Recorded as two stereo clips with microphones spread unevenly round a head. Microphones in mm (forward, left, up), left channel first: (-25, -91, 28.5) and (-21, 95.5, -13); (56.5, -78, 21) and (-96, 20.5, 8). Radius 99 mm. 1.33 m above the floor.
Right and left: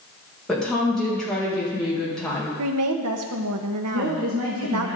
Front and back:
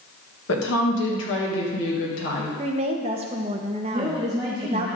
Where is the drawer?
I don't hear a drawer.